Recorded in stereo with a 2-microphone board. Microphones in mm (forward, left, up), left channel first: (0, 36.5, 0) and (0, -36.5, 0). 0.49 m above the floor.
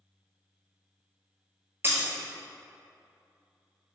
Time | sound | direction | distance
1.8 | breaking glass | 35° right (ahead or behind) | 1.0 m